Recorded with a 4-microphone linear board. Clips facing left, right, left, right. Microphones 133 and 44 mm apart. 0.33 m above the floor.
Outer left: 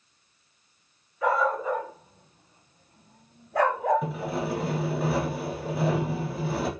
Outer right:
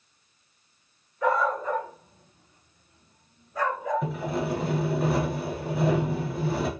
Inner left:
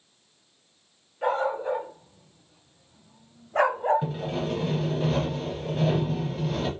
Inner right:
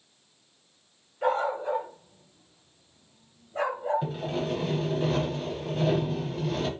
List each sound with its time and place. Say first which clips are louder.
1.2 s a dog barking: even, inner left 1 dB; 5° left (ahead or behind), 1.4 m; by 4.1 s 55° left (ahead or behind), 0.7 m
4.0 s sawing: outer right 1 dB, inner left 1 dB; centre (ahead or behind), 0.7 m